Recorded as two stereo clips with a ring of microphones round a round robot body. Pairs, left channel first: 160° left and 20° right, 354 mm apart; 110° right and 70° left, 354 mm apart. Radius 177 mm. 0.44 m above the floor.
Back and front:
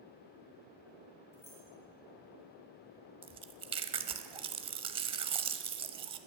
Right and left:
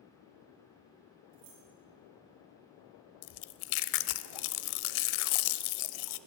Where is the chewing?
100° right, 0.5 m.